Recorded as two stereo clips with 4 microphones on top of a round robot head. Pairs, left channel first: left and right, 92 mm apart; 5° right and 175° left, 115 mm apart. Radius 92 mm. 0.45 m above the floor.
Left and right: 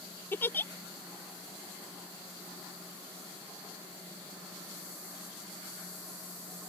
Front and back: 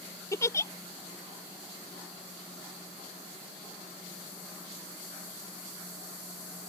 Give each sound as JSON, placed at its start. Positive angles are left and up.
{"t": 0.3, "sound": "a giggle", "azimuth_deg": 40}